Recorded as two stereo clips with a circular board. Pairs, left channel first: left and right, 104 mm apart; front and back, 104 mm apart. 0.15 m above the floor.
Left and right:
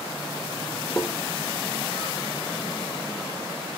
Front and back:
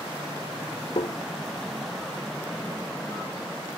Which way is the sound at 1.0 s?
20° left.